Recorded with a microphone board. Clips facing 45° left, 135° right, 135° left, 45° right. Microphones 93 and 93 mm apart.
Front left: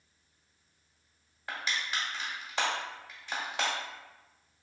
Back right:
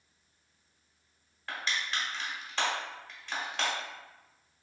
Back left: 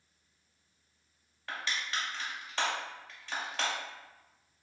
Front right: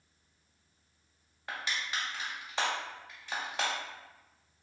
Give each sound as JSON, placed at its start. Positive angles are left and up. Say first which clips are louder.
{"t": 1.5, "sound": "crushing", "louder": "even, even", "azimuth_deg": 0, "distance_m": 1.1}